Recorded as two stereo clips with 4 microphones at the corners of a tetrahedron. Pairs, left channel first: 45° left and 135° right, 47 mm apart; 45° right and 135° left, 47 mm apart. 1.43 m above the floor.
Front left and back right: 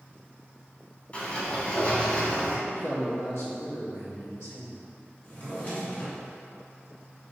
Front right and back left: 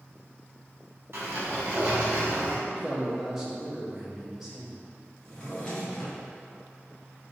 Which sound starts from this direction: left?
A sliding door, at 1.1 s.